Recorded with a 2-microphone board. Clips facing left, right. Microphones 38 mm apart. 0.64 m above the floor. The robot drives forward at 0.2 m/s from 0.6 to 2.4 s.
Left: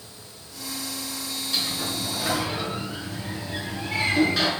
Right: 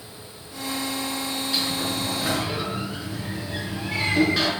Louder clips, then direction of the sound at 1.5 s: Right 1 dB; 5° right (ahead or behind).